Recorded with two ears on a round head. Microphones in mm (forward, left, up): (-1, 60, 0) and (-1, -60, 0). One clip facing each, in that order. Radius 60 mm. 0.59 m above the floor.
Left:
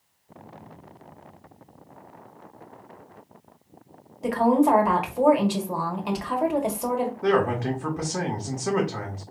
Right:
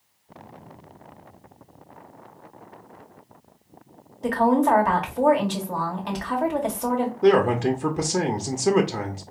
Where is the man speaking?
30° right (ahead or behind), 0.8 m.